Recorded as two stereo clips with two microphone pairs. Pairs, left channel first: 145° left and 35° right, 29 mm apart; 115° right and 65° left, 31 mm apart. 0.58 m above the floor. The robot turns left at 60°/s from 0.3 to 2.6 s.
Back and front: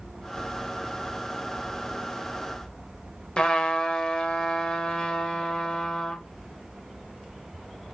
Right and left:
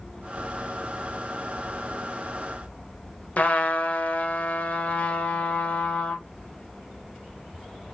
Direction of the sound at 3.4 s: 155° right.